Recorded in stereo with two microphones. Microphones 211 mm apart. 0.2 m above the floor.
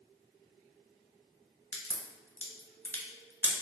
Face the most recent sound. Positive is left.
turn(degrees=10)  # may be behind; listen again after turning